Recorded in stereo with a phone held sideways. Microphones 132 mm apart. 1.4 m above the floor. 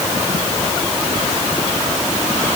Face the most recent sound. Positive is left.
No sound to turn to.